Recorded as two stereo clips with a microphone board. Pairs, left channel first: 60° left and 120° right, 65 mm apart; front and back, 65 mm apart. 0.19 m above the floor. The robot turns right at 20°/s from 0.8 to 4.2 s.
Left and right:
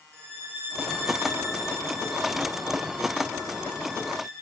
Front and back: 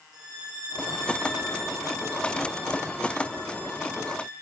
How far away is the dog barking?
I don't hear a dog barking.